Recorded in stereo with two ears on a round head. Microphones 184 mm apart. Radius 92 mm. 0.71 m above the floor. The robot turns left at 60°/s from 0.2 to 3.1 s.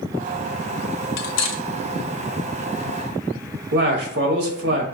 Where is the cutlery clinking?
55° left (ahead or behind), 0.5 m; by 1.6 s 70° left (ahead or behind), 0.5 m.